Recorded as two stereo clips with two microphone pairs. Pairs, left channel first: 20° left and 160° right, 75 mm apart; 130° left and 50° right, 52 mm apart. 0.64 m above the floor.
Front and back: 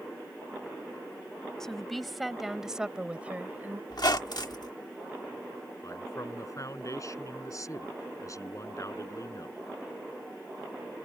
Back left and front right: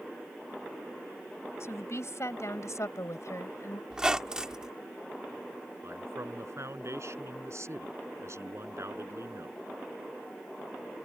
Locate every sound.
1.6 s a woman speaking: 105° left; by 3.8 s 135° left
3.9 s a squeak: 25° left
5.8 s a man speaking: 25° right